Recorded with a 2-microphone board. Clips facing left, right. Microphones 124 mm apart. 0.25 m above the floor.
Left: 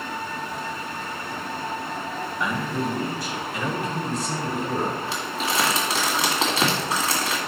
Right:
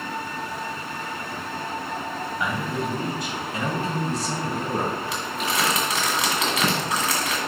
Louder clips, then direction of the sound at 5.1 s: Even; 30° left (ahead or behind).